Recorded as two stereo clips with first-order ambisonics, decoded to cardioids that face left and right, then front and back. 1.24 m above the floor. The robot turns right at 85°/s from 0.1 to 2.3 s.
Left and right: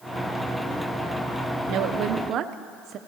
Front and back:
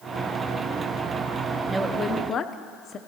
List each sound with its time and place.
1.7 s a woman speaking: 105° right, 0.6 m; by 3.0 s 55° right, 0.6 m